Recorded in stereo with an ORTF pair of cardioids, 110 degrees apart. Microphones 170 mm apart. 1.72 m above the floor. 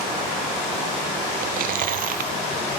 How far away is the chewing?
About 0.6 m.